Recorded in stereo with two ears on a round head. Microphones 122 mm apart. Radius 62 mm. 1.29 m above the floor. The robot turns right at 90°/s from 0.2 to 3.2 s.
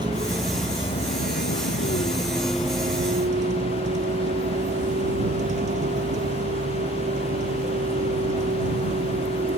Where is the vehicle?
30° right; by 9.6 s 120° right.